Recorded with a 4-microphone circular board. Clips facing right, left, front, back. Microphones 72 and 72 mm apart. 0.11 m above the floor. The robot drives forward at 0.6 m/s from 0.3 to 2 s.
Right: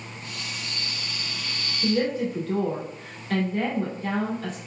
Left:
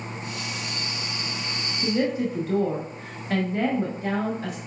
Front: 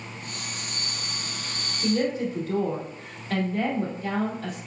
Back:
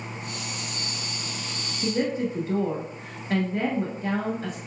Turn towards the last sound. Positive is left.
turn(degrees=150)